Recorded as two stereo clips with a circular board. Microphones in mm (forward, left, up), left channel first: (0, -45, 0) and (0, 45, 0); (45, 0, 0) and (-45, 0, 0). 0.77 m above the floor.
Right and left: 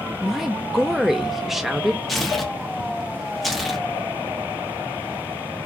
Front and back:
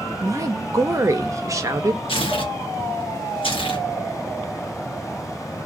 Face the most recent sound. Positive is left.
turn(degrees=0)